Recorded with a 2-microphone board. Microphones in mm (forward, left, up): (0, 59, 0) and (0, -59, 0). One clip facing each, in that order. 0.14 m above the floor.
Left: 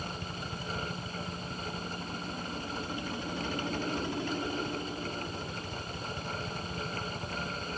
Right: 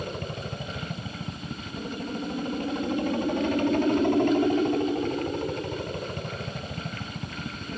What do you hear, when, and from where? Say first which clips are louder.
0.0 s a helicopter: right 6 dB; 60° right (ahead or behind)